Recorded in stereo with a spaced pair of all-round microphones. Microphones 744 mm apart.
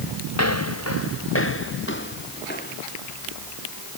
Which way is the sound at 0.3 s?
20° left (ahead or behind).